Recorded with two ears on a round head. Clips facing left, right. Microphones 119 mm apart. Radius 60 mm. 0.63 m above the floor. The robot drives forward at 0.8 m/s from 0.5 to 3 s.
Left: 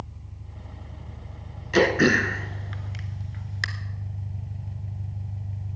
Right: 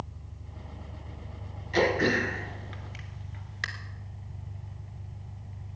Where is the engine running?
20° left (ahead or behind), 3.5 m; by 5.8 s 35° left (ahead or behind), 1.8 m.